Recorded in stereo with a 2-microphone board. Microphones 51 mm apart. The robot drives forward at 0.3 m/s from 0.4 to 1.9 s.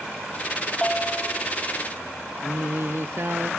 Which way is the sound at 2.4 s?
55° right (ahead or behind).